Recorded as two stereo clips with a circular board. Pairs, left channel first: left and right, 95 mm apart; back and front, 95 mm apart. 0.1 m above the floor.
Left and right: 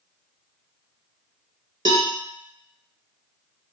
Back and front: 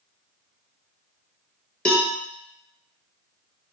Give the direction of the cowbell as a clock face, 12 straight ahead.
3 o'clock.